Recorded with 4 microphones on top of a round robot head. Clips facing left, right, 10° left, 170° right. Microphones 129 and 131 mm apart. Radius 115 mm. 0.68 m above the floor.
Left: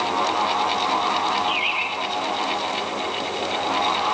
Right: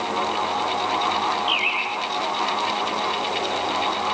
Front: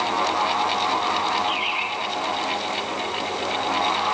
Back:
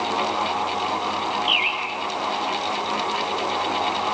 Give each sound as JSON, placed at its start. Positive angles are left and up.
{"t": 1.5, "sound": "a bird", "azimuth_deg": -170, "distance_m": 4.5}